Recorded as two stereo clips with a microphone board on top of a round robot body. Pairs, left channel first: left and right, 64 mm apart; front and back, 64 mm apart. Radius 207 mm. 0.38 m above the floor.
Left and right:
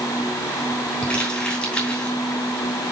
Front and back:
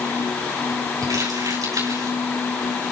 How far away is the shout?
I don't hear a shout.